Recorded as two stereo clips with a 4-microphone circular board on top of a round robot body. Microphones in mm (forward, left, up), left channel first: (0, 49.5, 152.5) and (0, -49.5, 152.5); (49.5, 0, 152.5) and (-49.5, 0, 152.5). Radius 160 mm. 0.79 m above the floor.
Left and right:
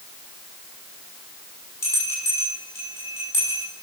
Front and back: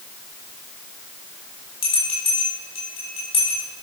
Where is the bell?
25° left, 5.5 m.